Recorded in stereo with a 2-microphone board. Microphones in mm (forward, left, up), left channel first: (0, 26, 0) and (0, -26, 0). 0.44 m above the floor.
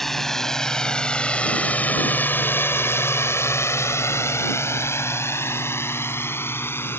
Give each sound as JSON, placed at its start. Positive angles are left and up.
{"t": 0.0, "sound": "a drone", "side_deg": 5}